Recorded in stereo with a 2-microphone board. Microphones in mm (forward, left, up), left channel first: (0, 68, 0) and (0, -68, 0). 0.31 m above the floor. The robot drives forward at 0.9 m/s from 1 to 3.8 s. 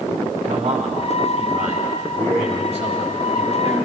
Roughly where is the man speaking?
Right.